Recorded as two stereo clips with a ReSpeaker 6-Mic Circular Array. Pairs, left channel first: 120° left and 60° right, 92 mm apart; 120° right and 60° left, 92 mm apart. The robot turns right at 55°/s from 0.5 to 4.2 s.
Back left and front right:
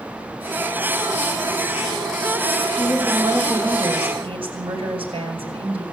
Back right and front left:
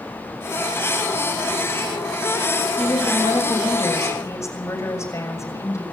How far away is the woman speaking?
About 6.5 m.